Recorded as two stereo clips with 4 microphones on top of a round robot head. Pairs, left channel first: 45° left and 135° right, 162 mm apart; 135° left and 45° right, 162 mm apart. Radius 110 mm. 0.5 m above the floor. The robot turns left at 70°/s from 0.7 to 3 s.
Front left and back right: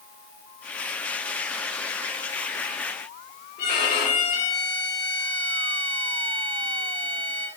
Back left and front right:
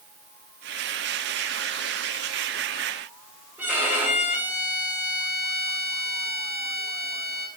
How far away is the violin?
About 3.5 m.